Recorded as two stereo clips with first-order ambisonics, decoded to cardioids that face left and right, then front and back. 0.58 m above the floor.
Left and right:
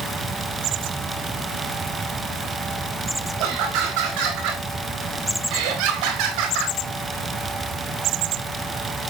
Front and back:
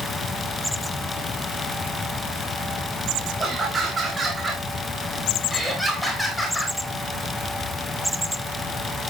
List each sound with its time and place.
3.4 s laughter: 110° right, 3.5 m; by 6.8 s 80° right, 3 m